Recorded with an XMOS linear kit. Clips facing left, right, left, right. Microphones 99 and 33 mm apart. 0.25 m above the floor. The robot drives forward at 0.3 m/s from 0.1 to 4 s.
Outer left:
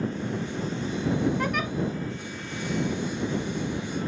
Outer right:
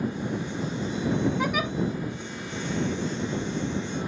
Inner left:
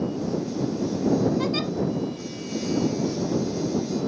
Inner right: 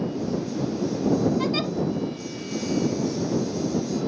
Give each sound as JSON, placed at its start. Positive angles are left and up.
{"t": 1.4, "sound": "a giggle", "side_deg": -5, "distance_m": 0.7}